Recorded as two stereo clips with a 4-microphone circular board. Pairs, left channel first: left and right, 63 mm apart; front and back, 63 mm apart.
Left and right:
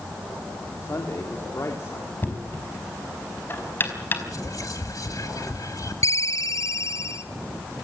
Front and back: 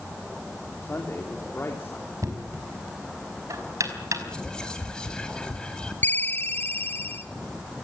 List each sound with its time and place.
0.8 s a man speaking: 55° left, 3 m
2.2 s knocking: 145° left, 4.5 m
4.3 s whispering: 75° left, 2.0 m
6.0 s a ringtone: 60° left, 1.8 m